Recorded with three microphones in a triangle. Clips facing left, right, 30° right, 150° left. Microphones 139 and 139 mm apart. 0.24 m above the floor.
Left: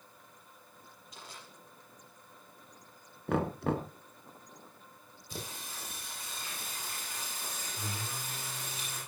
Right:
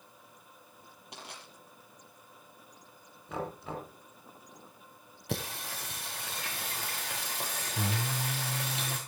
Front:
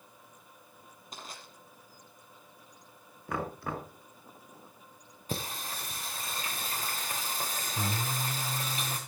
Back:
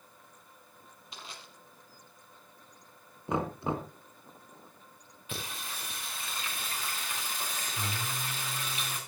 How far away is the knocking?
About 2 m.